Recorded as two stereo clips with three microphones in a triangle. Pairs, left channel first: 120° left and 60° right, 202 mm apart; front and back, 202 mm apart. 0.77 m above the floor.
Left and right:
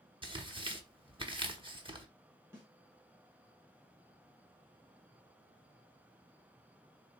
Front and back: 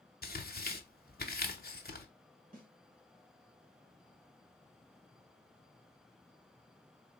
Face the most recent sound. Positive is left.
turn(degrees=-140)